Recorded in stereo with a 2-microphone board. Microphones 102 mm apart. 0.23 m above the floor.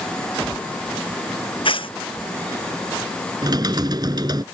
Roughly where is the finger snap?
No finger snap in this recording.